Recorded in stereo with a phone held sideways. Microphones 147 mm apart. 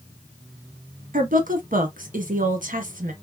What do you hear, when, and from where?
1.1 s a woman speaking: 80° right, 0.9 m